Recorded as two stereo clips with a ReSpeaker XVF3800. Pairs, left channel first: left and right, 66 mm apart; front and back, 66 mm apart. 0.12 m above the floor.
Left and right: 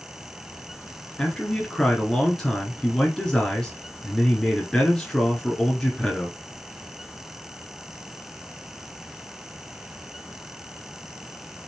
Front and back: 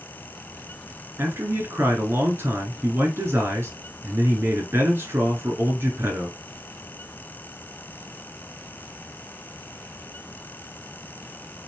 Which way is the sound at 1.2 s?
165° left.